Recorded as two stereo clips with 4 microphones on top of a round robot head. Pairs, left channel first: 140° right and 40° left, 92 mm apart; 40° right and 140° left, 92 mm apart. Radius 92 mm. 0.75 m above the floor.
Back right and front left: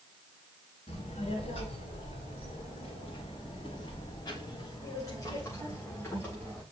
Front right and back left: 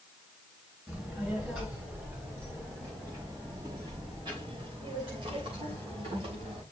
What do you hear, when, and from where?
0.9 s a child speaking: 140° right, 3.5 m; by 6.6 s 150° left, 4 m